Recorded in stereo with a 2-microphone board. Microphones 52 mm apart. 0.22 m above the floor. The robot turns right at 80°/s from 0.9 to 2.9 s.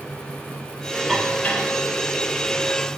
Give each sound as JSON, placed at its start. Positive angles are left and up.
{"t": 1.1, "sound": "dishes clattering", "side_deg": 0, "distance_m": 3.5}